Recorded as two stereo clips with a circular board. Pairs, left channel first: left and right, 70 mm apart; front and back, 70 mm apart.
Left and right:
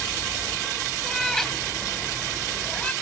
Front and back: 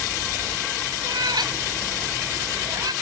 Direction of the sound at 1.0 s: 175° left.